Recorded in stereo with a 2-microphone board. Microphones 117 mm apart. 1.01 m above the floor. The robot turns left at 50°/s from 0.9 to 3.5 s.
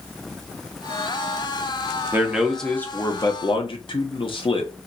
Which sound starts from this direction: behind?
A man speaking, at 2.1 s.